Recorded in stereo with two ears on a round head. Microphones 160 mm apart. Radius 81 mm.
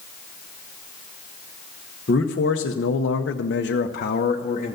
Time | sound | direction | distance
2.1 | a man speaking | 55° left (ahead or behind) | 1.0 m